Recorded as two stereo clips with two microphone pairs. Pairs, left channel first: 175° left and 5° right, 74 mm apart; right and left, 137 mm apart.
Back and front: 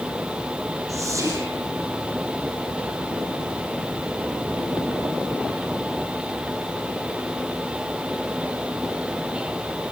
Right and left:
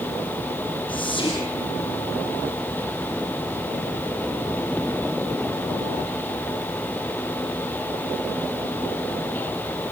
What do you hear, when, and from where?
0.9 s whispering: 40° right, 3.5 m